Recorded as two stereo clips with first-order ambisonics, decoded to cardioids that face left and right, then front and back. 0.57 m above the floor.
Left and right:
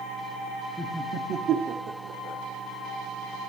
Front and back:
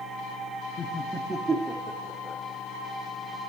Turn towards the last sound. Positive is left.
turn(degrees=-120)